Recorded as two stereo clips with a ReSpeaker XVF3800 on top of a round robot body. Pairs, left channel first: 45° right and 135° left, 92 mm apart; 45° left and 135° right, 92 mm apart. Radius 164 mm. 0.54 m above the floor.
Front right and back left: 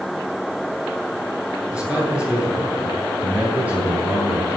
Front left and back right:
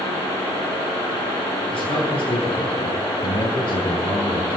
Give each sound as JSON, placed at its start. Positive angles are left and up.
{"t": 1.7, "sound": "a man speaking", "azimuth_deg": 55, "distance_m": 9.0}